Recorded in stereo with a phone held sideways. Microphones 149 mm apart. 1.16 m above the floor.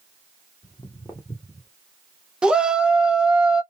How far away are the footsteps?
About 1.3 m.